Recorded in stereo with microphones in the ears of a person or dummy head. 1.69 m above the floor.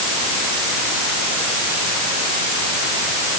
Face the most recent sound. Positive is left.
No sound to turn to.